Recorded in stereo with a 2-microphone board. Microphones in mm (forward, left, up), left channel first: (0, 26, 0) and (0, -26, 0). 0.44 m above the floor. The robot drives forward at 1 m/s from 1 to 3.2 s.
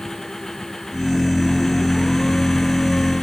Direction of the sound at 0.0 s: 5° left (ahead or behind).